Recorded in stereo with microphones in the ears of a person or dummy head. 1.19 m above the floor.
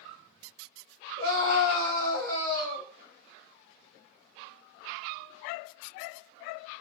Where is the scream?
70° right (ahead or behind), 1.3 m.